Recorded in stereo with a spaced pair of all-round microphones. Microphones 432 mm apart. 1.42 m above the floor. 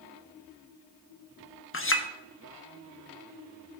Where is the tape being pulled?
No tape being pulled in this recording.